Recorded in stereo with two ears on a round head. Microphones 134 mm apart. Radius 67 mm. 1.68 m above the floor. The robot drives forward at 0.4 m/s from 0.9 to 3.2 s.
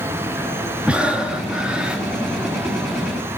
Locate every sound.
0.9 s breathing: 10° right (ahead or behind), 2.0 m; by 2.0 s 5° right (ahead or behind), 2.5 m